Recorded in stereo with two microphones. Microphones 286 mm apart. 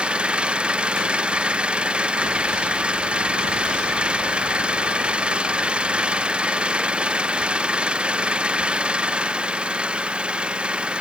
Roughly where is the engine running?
Centre.